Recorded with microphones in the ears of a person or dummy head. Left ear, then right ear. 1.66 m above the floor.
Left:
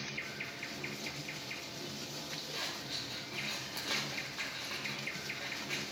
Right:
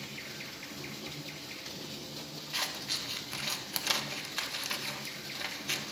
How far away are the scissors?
About 0.9 m.